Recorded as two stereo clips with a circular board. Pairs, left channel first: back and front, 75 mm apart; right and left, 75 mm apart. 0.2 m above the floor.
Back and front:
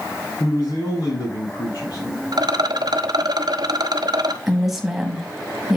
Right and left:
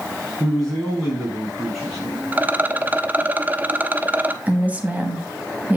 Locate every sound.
0.4 s a man speaking: straight behind, 3.5 m
2.3 s a rattle: 25° left, 0.6 m
4.5 s a woman speaking: 75° left, 1.3 m